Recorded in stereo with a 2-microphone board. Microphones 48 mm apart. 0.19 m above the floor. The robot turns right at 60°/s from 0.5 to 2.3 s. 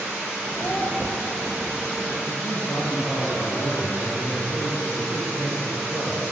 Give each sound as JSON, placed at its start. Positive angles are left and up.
{"t": 0.6, "sound": "a child speaking", "side_deg": 55, "distance_m": 1.8}
{"t": 2.3, "sound": "a man speaking", "side_deg": 65, "distance_m": 4.0}